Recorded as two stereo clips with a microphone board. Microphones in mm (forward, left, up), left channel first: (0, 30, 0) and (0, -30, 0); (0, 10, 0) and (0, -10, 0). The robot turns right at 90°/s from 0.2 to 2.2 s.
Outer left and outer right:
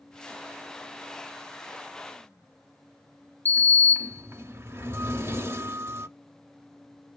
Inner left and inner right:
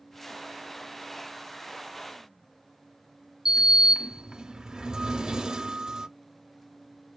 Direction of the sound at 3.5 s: 40° right (ahead or behind).